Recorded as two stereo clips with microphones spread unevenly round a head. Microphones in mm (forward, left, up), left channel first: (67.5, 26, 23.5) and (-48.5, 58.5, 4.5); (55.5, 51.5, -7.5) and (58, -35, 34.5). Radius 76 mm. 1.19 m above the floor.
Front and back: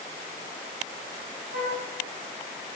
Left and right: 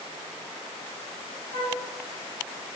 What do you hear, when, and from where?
1.5 s a flute: 130° right, 3.5 m